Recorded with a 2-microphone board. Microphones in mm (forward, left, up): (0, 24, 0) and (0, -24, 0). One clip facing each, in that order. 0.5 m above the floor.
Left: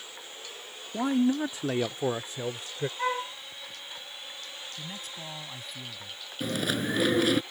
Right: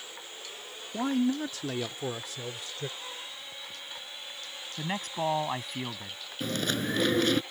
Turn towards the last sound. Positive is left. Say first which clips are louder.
# left 1 dB
turn(degrees=5)  # may be behind; listen again after turning